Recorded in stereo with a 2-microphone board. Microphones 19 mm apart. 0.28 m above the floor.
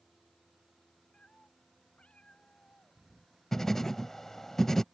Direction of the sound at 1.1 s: 85° left.